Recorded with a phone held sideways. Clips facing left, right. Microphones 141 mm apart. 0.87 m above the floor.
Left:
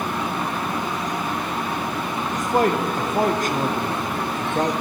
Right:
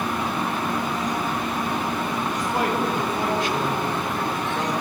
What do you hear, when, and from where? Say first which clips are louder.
2.3 s a man speaking: left 6 dB; 45° left (ahead or behind), 0.8 m